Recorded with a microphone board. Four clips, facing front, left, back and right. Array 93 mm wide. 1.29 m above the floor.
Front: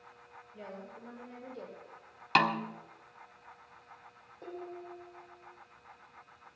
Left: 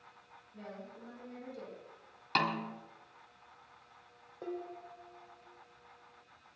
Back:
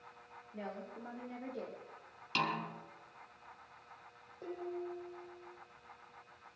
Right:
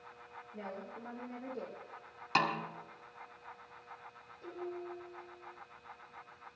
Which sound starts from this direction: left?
Dishes clattering, at 4.4 s.